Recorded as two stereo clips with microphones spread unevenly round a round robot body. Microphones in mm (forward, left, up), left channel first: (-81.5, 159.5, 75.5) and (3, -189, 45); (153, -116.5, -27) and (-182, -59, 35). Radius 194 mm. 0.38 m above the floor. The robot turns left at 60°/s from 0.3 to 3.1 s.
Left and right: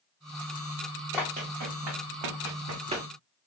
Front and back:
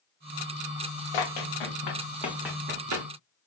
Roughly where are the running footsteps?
Ahead.